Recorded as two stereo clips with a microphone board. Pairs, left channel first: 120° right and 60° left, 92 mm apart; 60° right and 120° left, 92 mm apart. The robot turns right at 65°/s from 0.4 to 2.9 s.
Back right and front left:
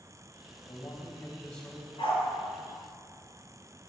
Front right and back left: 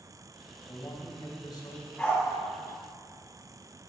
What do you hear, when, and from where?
0.7 s a man speaking: 100° right, 2.5 m; by 1.9 s 20° right, 2.5 m
2.0 s a dog barking: 145° right, 2 m; by 2.2 s 130° right, 2 m